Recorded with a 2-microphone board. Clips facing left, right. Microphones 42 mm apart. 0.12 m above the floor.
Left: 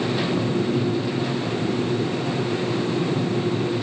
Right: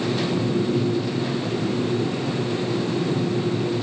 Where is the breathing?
No breathing in this recording.